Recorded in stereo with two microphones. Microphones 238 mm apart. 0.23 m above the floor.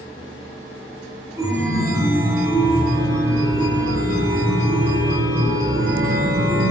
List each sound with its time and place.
1.4 s a chime: 15° right (ahead or behind), 1.6 m